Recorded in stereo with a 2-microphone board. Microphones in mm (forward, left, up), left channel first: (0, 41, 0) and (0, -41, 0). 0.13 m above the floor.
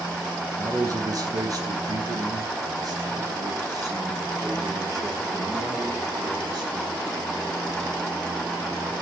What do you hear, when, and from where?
0.6 s a man speaking: 45° right (ahead or behind), 1.5 m; by 7.0 s 50° right (ahead or behind), 4.5 m